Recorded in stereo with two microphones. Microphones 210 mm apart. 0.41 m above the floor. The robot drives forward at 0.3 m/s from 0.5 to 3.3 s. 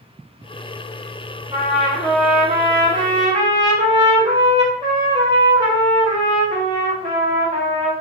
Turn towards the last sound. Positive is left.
turn(degrees=-25)  # may be behind; listen again after turning